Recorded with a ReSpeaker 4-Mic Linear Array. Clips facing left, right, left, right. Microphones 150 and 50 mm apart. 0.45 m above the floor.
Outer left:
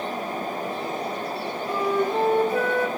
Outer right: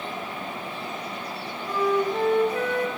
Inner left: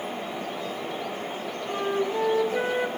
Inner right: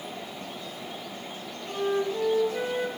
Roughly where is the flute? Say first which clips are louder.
Outer right 1 dB, even; left.